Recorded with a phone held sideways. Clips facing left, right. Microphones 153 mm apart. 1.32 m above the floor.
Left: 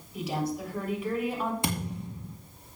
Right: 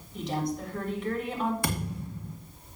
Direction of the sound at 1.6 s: 20° left (ahead or behind).